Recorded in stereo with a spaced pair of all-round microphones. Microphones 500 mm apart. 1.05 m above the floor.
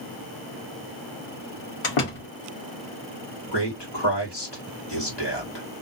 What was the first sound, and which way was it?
A door slam, 75° left (ahead or behind).